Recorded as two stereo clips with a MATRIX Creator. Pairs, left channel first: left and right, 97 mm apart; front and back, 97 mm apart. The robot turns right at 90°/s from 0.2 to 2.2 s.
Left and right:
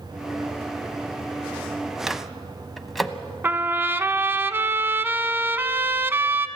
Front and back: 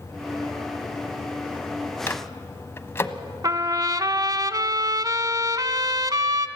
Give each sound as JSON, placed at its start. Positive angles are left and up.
{"t": 2.1, "sound": "a microwave", "azimuth_deg": -10, "distance_m": 1.0}
{"t": 3.4, "sound": "a trumpet", "azimuth_deg": -150, "distance_m": 0.9}